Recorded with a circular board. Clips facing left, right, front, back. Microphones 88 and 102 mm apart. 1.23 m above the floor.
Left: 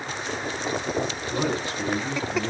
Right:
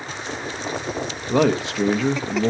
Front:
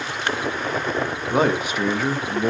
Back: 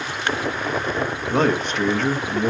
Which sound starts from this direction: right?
A man speaking, at 1.3 s.